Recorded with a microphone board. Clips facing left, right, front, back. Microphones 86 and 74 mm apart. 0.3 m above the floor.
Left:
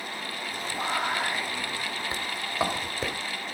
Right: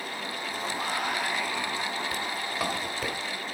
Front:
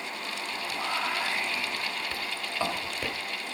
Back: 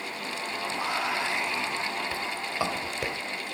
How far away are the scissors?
I don't hear scissors.